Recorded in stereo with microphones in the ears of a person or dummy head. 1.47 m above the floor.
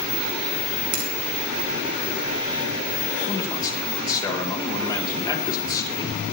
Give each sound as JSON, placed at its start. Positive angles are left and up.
{"t": 0.9, "sound": "a finger snap", "side_deg": -55, "distance_m": 2.0}
{"t": 3.3, "sound": "a man speaking", "side_deg": 25, "distance_m": 3.0}